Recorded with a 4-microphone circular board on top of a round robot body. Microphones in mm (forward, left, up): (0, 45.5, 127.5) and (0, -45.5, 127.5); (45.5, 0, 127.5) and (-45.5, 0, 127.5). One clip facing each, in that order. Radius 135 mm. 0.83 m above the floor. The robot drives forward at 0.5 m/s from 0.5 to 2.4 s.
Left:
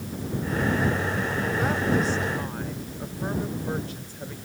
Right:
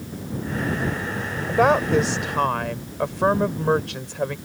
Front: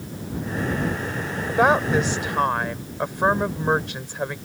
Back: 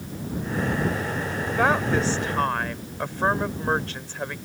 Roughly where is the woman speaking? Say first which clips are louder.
Right 9 dB, front 4 dB; right.